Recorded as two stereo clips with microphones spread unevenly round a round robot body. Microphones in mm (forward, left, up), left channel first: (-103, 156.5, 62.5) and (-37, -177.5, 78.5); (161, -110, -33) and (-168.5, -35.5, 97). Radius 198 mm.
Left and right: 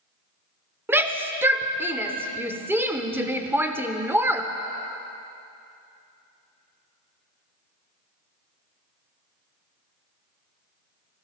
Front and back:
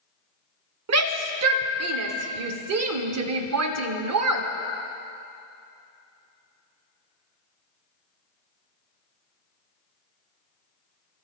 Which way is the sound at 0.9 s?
160° right.